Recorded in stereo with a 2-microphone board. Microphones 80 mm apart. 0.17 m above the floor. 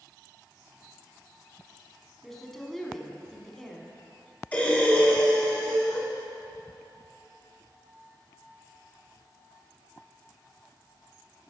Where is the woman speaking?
5° left (ahead or behind), 1.3 m.